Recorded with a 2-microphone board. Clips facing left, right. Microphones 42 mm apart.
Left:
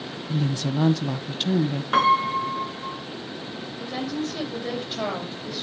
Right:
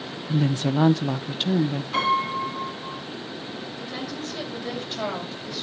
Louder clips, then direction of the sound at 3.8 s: Left 6 dB; 15° left (ahead or behind).